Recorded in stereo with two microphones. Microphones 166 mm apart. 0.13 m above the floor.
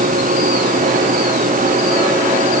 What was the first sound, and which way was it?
Only background noise.